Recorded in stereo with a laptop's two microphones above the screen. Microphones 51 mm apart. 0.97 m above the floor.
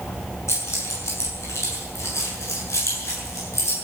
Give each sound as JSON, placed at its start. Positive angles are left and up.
{"t": 0.5, "sound": "keys jangling", "side_deg": 70, "distance_m": 7.0}